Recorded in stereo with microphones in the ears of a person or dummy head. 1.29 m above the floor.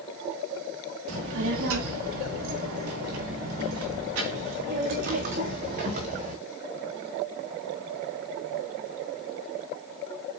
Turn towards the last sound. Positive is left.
turn(degrees=-40)  # may be behind; listen again after turning